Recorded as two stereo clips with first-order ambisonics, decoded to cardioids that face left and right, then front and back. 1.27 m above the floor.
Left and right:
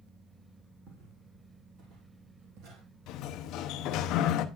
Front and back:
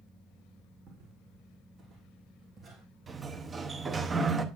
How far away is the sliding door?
About 0.6 m.